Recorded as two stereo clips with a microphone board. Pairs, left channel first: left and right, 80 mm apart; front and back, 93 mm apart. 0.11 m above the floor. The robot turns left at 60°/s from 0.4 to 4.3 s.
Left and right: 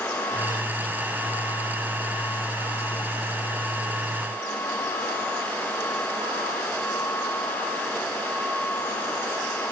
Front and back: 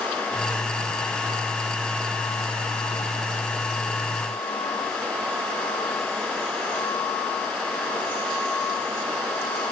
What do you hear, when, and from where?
Only background noise.